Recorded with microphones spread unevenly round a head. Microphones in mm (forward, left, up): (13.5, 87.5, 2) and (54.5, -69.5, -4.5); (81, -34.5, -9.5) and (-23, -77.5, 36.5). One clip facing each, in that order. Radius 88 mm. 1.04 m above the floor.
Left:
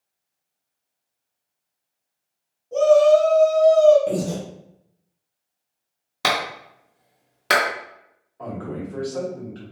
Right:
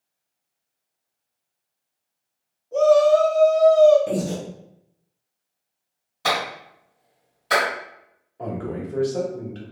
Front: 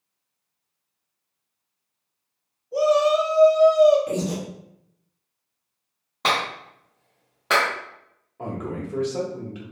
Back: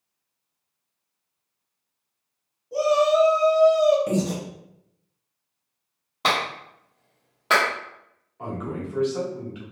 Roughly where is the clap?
Behind left.